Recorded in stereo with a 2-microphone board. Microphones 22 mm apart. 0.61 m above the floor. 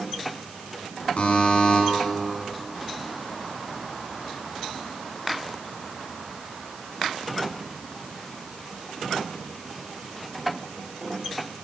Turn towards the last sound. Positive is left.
turn(degrees=55)  # may be behind; listen again after turning